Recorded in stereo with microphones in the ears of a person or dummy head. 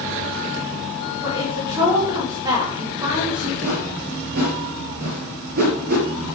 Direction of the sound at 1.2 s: 15° right (ahead or behind).